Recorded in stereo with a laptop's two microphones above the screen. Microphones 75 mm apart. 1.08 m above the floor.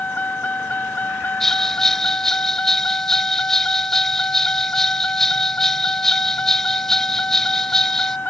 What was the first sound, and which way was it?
A vehicle, 20° left (ahead or behind).